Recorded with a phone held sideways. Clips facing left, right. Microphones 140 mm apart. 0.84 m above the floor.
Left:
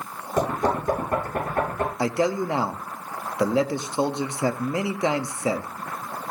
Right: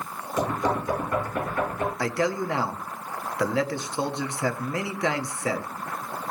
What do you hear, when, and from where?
0.4 s knocking: 55° left (ahead or behind), 10 m
2.0 s a man speaking: 20° left (ahead or behind), 1.2 m